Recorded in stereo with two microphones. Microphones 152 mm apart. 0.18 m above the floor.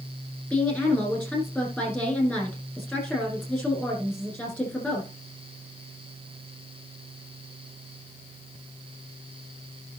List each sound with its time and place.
0.5 s a woman speaking: 10° left (ahead or behind), 7.5 m